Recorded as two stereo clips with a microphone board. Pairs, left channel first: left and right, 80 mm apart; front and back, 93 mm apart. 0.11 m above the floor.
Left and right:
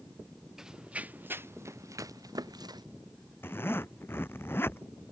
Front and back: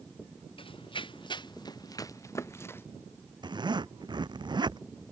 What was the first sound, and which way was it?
Running footsteps, 5° right.